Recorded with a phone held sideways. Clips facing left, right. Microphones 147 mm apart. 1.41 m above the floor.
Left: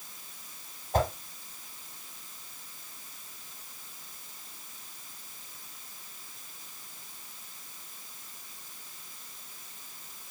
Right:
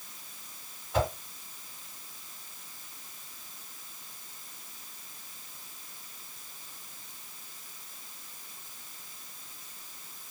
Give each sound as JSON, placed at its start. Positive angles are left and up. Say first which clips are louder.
{"t": 0.9, "sound": "a whoosh", "louder": "left 1 dB", "side_deg": 45, "distance_m": 1.3}